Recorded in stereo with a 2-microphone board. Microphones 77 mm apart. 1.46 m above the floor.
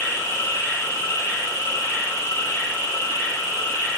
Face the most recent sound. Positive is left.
turn(degrees=40)  # may be behind; listen again after turning